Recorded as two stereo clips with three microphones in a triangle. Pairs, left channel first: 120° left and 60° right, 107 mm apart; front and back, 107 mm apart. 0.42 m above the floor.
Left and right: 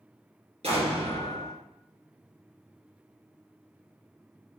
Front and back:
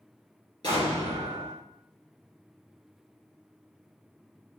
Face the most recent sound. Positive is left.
turn(degrees=-45)